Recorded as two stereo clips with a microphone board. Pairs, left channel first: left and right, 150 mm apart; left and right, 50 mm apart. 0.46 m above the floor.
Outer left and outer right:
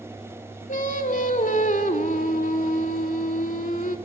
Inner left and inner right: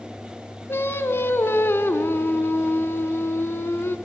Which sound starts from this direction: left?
Singing, at 0.7 s.